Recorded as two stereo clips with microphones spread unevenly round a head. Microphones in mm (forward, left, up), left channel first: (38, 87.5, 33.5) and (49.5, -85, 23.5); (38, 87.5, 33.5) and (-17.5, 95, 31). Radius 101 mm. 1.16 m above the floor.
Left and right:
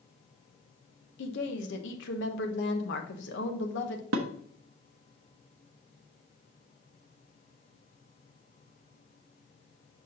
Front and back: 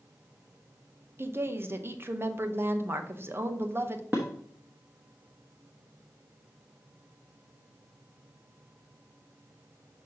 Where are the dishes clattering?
110° right, 0.7 m.